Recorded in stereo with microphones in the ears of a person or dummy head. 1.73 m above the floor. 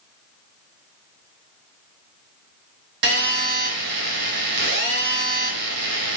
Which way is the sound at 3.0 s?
65° right (ahead or behind).